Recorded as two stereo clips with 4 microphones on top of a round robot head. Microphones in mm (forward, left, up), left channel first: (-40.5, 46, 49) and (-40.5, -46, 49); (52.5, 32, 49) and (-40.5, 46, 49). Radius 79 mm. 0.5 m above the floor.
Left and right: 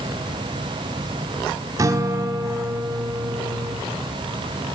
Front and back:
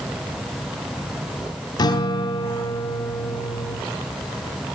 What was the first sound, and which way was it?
A guitar, 40° right.